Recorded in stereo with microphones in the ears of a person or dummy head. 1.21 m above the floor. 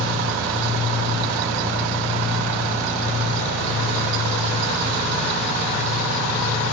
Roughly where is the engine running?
Right.